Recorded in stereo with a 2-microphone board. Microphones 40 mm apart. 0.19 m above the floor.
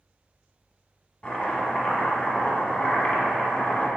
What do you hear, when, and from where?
1.2 s chopping: 25° left (ahead or behind), 1.0 m